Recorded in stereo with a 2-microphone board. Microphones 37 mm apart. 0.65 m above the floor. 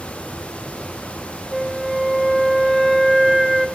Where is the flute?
10° right (ahead or behind), 1.8 m.